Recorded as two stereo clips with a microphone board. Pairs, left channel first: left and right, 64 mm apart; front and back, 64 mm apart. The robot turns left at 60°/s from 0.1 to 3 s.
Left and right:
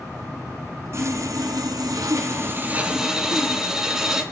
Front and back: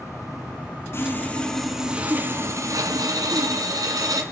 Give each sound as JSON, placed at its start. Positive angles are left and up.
{"t": 0.9, "sound": "sawing", "azimuth_deg": -45, "distance_m": 1.6}